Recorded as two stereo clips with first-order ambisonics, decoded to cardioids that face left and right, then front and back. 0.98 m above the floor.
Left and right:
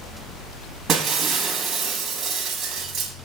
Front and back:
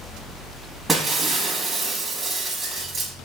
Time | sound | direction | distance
0.9 | breaking glass | 115° right | 1.0 m